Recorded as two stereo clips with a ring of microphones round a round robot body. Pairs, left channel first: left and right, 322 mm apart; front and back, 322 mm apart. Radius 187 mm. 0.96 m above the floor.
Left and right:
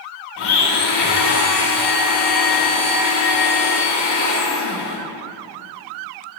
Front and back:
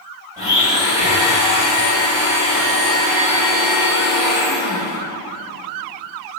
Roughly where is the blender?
Left.